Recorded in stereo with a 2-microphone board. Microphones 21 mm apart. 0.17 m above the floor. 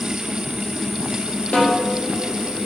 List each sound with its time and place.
1.5 s a snare drum: 75° left (ahead or behind), 4.5 m